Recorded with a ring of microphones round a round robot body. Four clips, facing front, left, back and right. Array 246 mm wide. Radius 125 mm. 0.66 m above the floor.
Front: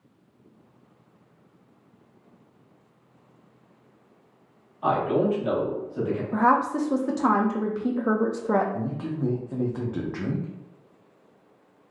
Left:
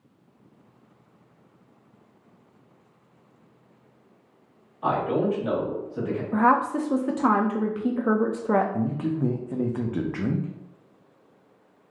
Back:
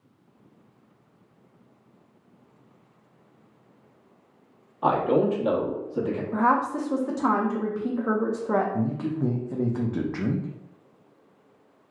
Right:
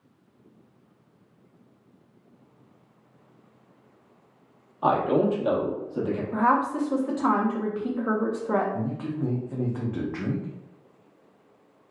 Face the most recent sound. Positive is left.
turn(degrees=125)